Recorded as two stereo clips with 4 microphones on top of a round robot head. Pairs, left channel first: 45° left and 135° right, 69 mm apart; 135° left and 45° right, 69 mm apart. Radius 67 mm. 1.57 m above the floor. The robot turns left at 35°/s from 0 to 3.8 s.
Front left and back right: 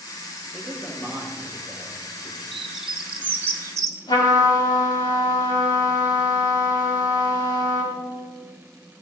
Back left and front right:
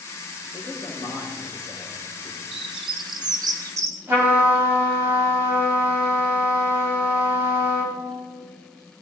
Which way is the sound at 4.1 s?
15° left.